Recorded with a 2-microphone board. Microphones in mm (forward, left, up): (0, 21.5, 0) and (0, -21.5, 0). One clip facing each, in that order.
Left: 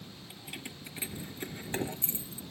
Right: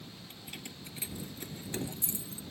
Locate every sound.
0.3 s keys jangling: 15° left (ahead or behind); by 2.4 s 30° left (ahead or behind)